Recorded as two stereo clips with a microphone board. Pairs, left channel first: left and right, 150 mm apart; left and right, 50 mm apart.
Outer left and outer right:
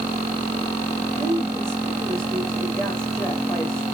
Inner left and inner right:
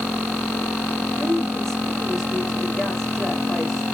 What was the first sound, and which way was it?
A woman speaking, 5° left (ahead or behind).